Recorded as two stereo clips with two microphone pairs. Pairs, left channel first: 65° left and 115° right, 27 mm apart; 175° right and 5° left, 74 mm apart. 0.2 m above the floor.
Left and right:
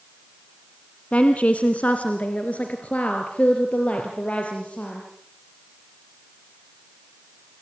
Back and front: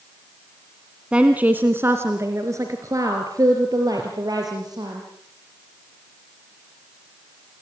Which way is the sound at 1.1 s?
75° left.